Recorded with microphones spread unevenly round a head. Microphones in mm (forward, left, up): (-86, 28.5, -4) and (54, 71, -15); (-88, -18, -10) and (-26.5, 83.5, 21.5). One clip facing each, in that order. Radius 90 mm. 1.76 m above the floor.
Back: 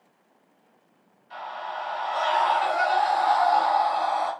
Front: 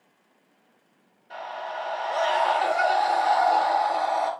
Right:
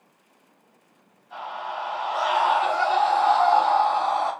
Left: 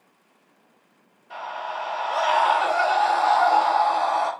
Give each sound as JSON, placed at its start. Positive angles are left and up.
{"t": 1.3, "sound": "a scream", "azimuth_deg": 45, "distance_m": 6.0}